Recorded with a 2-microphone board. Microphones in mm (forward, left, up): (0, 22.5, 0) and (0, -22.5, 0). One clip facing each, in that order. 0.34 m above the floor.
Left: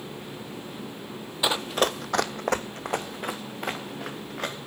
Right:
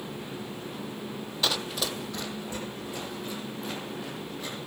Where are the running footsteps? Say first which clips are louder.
Left 6 dB; 15° left (ahead or behind), 0.6 m; by 4.5 s 60° left (ahead or behind), 2.5 m.